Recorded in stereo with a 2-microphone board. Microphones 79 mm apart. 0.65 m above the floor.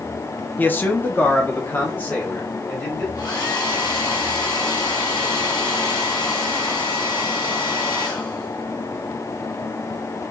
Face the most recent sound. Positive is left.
turn(degrees=60)  # may be behind; listen again after turning